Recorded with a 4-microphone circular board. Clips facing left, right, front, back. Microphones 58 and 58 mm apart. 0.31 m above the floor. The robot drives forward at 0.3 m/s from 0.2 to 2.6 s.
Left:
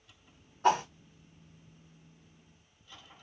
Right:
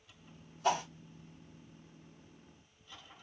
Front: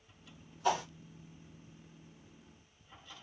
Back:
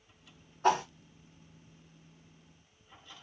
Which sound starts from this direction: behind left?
A whoosh, at 0.6 s.